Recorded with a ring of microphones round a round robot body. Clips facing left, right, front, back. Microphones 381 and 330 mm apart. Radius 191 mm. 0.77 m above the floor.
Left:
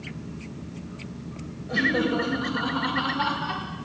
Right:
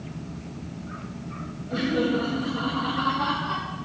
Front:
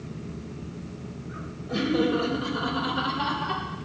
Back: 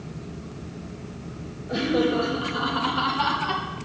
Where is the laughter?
70° left, 3.5 m; by 3.6 s 130° left, 2.5 m.